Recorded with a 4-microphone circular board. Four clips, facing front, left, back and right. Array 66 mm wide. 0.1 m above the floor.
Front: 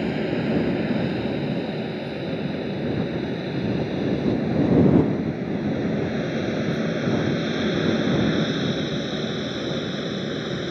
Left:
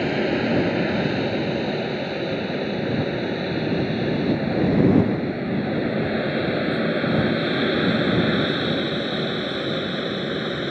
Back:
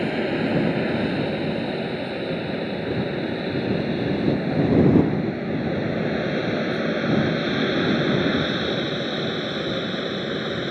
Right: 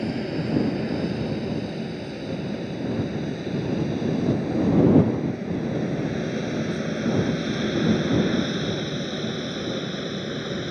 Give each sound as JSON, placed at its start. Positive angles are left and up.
{"t": 0.0, "sound": "an aircraft", "azimuth_deg": 115}